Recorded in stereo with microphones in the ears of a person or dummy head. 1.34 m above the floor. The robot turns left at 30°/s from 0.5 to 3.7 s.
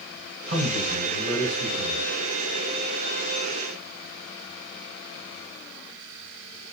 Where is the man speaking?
120° right, 5 m; by 2.1 s 165° right, 5 m.